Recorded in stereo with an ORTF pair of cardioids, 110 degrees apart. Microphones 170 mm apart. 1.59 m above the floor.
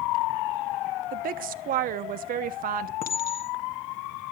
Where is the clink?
65° left, 2 m.